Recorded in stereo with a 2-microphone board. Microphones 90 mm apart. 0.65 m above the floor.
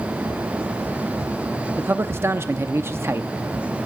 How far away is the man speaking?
About 0.7 m.